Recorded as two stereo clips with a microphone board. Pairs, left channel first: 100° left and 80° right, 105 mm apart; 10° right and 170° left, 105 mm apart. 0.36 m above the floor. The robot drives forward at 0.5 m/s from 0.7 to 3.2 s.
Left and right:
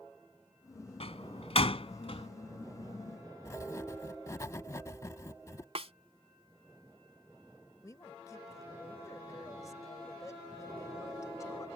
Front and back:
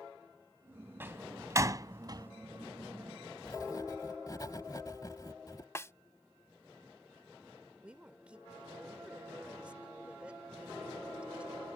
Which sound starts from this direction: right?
A snare drum, at 5.8 s.